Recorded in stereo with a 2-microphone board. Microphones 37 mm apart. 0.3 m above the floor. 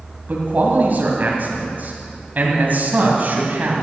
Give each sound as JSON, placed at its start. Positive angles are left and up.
{"t": 0.3, "sound": "a man speaking", "side_deg": -50, "distance_m": 2.5}